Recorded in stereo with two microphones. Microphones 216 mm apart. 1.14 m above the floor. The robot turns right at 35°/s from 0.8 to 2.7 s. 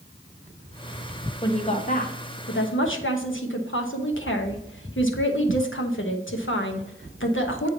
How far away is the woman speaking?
About 1.1 m.